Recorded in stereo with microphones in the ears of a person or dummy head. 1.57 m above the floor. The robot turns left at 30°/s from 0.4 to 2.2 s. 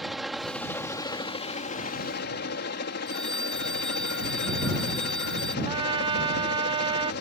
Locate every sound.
0.0 s a helicopter: straight behind; by 7.2 s 125° left
3.1 s a phone ringing: 5° left (ahead or behind)
5.7 s a trumpet: 25° right (ahead or behind)